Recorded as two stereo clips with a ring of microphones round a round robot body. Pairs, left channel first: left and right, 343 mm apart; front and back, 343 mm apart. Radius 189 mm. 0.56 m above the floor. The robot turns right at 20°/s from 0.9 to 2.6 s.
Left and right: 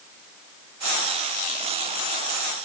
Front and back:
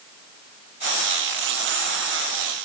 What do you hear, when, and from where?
Only background noise.